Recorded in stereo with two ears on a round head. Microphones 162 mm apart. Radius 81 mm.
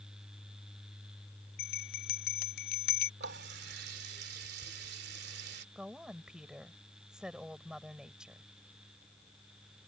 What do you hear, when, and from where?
1.6 s a bell: 55° left (ahead or behind)
3.2 s a running tap: 60° right (ahead or behind)
5.8 s a woman speaking: 5° right (ahead or behind)